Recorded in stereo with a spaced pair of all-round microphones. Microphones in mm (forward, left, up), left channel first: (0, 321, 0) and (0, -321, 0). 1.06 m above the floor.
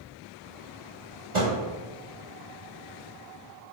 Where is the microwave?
80° right, 1.5 m.